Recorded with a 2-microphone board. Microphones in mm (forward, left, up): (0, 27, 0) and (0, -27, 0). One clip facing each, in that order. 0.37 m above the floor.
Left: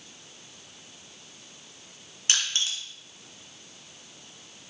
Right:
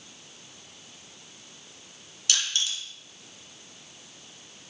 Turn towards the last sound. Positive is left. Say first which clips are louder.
# left 1 dB
turn(degrees=35)  # may be behind; listen again after turning